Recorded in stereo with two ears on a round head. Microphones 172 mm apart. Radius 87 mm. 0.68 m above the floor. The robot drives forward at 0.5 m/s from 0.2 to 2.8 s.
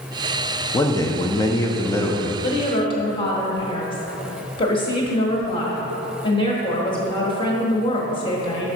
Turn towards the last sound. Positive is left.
turn(degrees=25)  # may be behind; listen again after turning